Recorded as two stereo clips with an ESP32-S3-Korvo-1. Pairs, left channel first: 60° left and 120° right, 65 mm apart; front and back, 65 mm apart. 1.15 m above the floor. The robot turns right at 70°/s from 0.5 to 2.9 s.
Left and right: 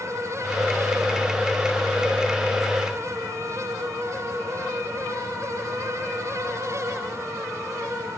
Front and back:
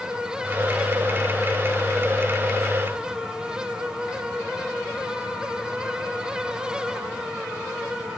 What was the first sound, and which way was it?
Only background noise.